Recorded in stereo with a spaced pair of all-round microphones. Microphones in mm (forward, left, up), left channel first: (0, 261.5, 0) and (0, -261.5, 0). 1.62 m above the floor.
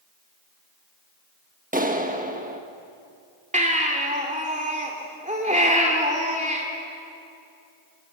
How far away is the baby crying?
About 3 m.